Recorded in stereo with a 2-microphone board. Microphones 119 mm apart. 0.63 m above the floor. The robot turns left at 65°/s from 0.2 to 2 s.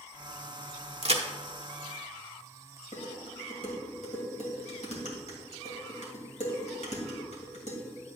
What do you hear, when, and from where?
1.0 s a crack: 60° right (ahead or behind), 0.9 m; by 1.2 s 55° right (ahead or behind), 0.9 m
2.9 s dishes clattering: 75° left (ahead or behind), 2 m